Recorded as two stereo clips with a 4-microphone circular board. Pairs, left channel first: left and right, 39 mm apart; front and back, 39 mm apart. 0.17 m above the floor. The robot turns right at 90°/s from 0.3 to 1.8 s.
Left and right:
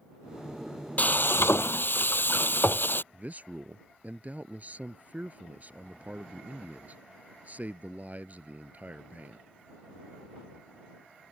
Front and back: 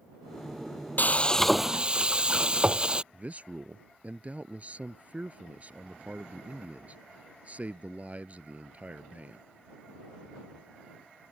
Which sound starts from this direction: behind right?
A man speaking, at 3.1 s.